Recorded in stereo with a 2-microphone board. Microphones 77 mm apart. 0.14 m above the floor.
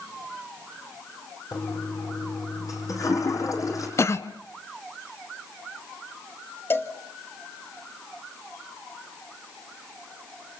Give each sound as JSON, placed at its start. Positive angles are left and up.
{"t": 1.5, "sound": "a toilet flushing", "side_deg": 45, "distance_m": 5.5}
{"t": 4.0, "sound": "a cough", "side_deg": 40, "distance_m": 1.3}
{"t": 6.7, "sound": "a cowbell", "side_deg": 30, "distance_m": 2.0}